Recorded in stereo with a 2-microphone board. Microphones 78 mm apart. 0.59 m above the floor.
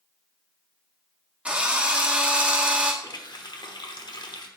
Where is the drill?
15° right (ahead or behind), 1.1 m.